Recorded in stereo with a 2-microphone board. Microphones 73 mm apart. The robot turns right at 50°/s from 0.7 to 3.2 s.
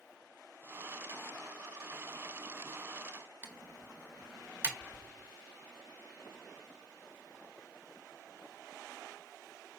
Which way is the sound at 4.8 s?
15° left (ahead or behind).